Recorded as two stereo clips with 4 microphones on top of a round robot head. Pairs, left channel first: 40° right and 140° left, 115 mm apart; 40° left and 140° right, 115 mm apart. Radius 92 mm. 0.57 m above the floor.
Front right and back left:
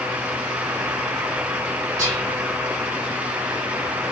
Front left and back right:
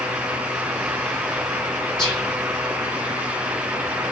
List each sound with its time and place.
2.0 s whispering: 90° left, 1.1 m